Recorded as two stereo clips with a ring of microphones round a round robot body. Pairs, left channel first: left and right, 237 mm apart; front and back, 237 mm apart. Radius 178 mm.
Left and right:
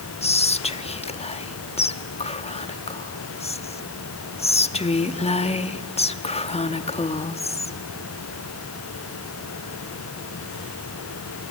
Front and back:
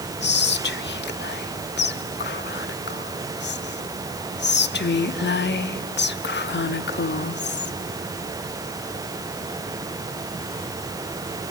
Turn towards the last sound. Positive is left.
turn(degrees=30)